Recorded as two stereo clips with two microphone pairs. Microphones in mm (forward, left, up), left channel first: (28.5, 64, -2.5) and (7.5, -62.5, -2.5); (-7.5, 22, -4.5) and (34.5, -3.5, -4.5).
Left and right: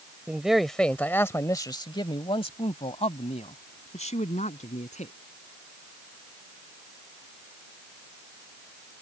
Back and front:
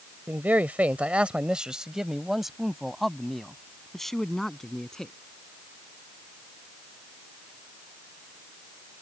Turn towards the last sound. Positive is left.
turn(degrees=70)